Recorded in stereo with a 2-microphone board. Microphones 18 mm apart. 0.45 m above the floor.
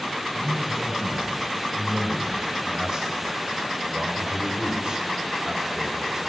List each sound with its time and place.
0.3 s a man speaking: 20° right (ahead or behind), 3.5 m; by 6.2 s 30° right (ahead or behind), 1.4 m